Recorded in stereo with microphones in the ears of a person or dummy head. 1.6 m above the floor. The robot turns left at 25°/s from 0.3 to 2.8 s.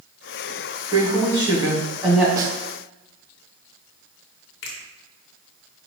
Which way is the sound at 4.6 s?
60° left (ahead or behind).